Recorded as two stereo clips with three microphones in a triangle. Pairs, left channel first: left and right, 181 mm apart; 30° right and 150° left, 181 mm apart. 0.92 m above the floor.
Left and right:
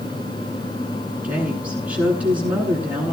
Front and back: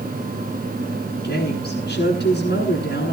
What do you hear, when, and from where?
1.2 s a woman speaking: 5° right, 9 m